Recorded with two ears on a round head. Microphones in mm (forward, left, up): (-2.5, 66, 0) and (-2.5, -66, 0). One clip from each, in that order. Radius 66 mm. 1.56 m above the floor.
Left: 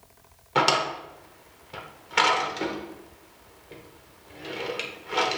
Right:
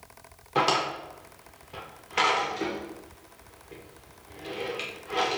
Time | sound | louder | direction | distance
0.6 | a drawer | left 2 dB | 20° left (ahead or behind) | 0.7 m